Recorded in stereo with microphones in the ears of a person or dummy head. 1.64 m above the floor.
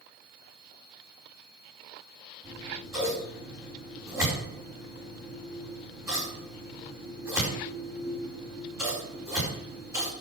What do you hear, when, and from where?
2.4 s scissors: 10° right (ahead or behind), 4.5 m